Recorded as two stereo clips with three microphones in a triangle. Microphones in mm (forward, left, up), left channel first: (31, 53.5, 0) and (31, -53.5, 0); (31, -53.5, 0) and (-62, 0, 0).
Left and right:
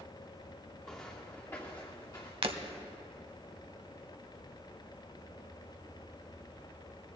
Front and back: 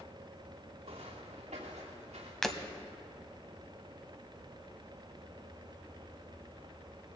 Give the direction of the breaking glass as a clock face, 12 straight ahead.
4 o'clock.